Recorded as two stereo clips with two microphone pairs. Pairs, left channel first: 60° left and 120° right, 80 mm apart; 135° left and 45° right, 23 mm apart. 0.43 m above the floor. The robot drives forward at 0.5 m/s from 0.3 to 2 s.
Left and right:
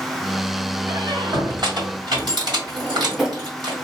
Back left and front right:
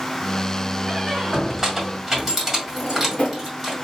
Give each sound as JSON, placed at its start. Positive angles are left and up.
{"t": 0.9, "sound": "a squeak", "azimuth_deg": -105, "distance_m": 1.6}
{"t": 2.7, "sound": "a drawer", "azimuth_deg": 155, "distance_m": 1.2}